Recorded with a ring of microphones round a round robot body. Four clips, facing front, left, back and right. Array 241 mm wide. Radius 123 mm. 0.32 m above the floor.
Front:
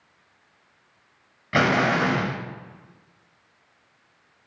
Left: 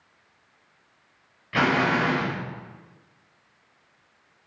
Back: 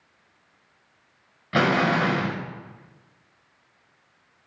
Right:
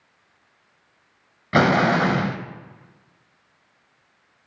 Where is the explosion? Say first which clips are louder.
Right 5 dB, even; 85° right, 0.5 m.